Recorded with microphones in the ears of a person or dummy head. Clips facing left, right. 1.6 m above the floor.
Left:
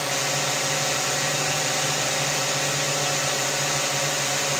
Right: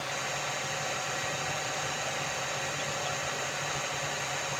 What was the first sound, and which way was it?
A drone, 60° left (ahead or behind).